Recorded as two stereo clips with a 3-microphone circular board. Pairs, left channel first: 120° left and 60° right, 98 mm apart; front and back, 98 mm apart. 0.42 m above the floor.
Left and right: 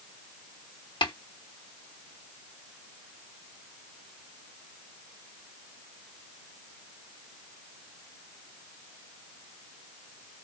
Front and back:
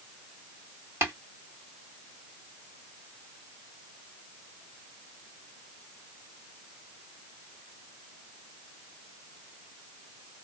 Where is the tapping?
125° left, 1.7 m.